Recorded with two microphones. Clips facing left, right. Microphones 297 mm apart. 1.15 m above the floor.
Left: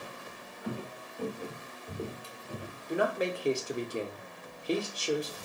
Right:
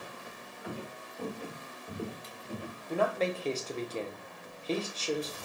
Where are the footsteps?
20° left (ahead or behind), 1.2 m; by 2.8 s 5° left (ahead or behind), 1.4 m.